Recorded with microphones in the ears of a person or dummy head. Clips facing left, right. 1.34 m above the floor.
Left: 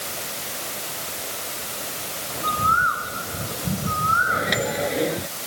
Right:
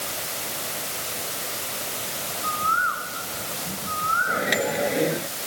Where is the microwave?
Centre (ahead or behind).